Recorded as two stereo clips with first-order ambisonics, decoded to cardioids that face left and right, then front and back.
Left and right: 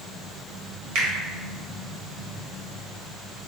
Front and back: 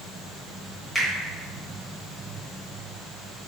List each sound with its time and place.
0.9 s a finger snap: 85° right, 1.1 m